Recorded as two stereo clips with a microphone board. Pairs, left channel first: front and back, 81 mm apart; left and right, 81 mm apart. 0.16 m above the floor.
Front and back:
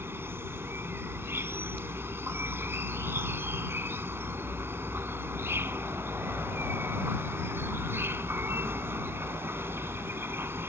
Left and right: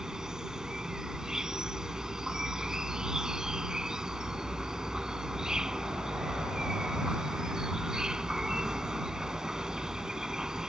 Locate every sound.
0.0 s an insect: 165° right